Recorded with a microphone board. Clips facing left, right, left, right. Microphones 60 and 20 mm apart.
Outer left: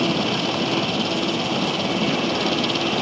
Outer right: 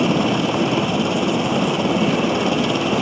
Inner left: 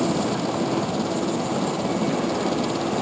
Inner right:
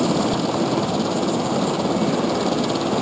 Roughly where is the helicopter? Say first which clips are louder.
Outer right 4 dB, inner right 3 dB; centre.